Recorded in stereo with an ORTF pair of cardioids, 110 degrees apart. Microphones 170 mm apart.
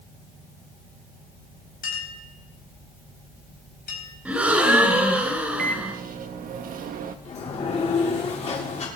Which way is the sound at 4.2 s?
5° right.